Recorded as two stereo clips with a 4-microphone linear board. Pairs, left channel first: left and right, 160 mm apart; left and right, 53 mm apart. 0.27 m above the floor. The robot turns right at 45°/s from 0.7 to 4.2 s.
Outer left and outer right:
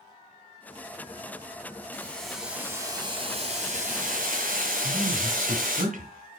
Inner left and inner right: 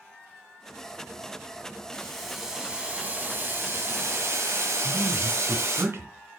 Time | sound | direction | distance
1.9 | boiling | 165° left | 2.5 m
4.8 | a man speaking | 55° right (ahead or behind) | 2 m